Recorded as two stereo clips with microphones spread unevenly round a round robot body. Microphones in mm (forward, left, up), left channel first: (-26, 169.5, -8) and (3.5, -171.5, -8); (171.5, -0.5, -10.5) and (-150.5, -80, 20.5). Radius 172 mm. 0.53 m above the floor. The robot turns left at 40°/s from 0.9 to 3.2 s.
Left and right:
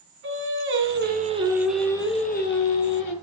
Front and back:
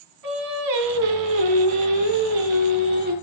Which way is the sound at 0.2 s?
140° right.